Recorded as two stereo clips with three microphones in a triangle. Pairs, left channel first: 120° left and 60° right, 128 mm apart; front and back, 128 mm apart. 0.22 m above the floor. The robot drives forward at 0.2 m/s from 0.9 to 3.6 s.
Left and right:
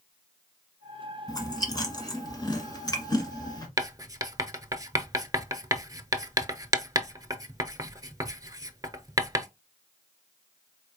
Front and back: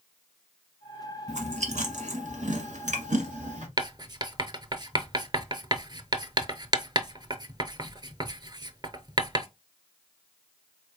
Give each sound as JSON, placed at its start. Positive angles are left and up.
{"t": 1.3, "sound": "chewing", "azimuth_deg": 180, "distance_m": 1.1}
{"t": 3.8, "sound": "writing", "azimuth_deg": -125, "distance_m": 0.6}